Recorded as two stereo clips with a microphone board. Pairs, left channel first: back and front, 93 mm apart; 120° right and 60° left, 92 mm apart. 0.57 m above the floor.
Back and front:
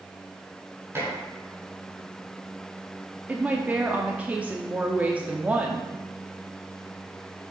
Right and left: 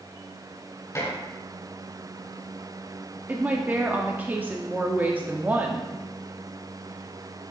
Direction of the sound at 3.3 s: 35° left.